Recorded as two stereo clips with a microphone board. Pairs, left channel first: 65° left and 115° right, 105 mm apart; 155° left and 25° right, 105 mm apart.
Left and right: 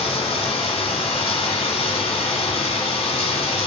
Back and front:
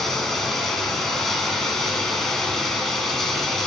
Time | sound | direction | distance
0.0 | running water | 70° left | 1.0 m